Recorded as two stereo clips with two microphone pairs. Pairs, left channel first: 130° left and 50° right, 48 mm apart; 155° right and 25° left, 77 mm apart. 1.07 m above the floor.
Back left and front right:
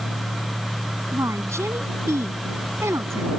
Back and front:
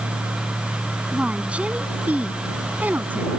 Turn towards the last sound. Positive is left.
turn(degrees=-40)